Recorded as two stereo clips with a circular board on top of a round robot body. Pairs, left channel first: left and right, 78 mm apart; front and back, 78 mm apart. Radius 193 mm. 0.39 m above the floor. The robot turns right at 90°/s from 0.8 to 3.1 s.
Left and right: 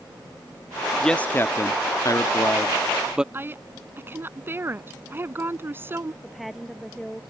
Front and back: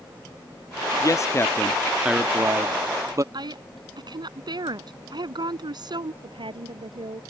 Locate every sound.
1.0 s a man speaking: 5° left; by 3.2 s 165° right
3.3 s a woman speaking: 150° right
6.2 s a woman speaking: straight behind